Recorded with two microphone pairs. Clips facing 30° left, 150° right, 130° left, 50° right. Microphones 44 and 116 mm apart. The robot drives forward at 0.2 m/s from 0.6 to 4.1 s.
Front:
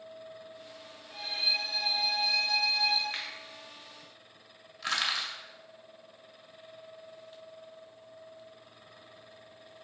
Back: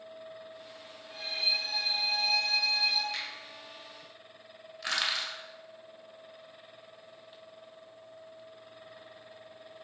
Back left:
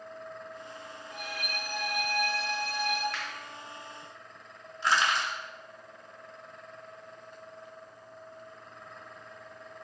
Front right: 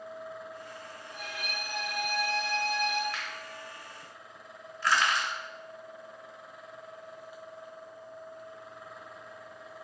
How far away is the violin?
About 1.7 m.